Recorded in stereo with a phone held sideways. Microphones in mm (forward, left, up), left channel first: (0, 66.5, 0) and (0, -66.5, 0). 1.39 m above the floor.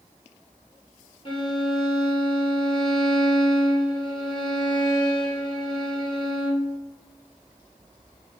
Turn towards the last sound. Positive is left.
turn(degrees=35)  # may be behind; listen again after turning